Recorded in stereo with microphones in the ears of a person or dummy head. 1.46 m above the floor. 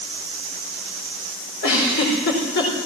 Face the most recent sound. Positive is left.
turn(degrees=60)  # may be behind; listen again after turning